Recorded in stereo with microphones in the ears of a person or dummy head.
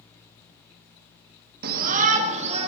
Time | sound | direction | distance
1.6 | a shout | 50° right (ahead or behind) | 1.3 m